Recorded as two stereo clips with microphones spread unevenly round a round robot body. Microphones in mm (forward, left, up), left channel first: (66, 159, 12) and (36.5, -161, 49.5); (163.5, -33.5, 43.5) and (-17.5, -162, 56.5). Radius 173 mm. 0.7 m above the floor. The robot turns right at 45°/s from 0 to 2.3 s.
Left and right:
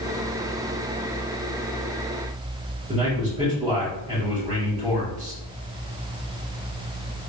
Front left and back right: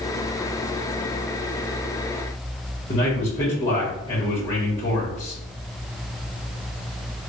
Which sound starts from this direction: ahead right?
A man speaking, at 2.9 s.